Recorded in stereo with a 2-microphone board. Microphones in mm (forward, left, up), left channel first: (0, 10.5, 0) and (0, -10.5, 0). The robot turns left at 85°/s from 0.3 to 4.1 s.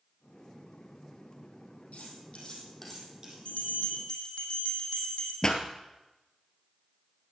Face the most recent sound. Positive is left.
turn(degrees=30)  # may be behind; listen again after turning